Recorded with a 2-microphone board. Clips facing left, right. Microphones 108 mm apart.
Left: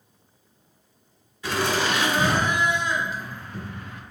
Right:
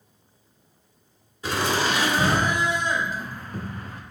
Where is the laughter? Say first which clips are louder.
Even; 30° right (ahead or behind), 1.6 m; by 4.0 s 35° right (ahead or behind), 0.5 m.